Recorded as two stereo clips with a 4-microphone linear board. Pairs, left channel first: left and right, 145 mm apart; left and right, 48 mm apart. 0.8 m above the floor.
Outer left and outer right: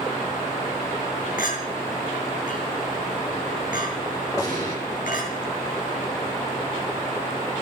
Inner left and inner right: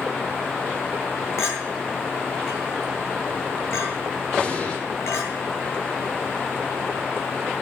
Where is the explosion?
25° left (ahead or behind), 8 m.